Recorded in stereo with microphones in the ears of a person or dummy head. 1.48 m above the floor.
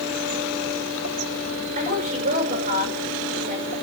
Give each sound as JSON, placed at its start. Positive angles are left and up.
{"t": 1.8, "sound": "a woman speaking", "side_deg": -45, "distance_m": 9.0}